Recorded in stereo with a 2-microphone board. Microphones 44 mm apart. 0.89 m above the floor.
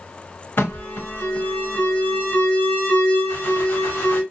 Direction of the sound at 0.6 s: 55° left (ahead or behind).